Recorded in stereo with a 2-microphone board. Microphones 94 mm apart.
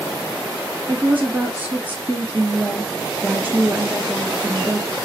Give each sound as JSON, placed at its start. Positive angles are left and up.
{"t": 0.9, "sound": "a woman speaking", "side_deg": -15, "distance_m": 1.3}